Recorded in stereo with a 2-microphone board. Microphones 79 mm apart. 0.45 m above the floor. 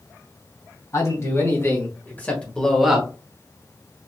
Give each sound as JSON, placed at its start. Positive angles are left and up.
{"t": 0.9, "sound": "a man speaking", "side_deg": 45, "distance_m": 2.5}